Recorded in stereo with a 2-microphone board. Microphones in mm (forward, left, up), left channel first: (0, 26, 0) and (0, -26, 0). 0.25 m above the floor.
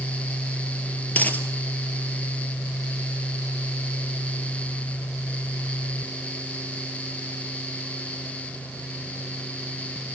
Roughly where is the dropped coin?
Left.